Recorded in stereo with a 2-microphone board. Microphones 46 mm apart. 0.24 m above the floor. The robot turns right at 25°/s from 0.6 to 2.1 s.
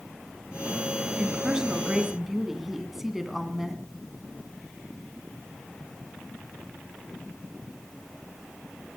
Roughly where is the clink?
I don't hear a clink.